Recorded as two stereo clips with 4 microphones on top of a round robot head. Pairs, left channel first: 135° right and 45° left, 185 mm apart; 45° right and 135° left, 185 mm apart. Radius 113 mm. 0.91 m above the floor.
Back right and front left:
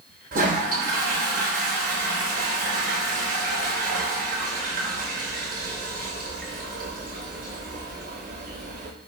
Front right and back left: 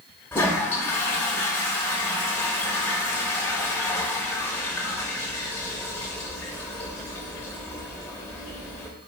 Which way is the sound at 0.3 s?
30° left.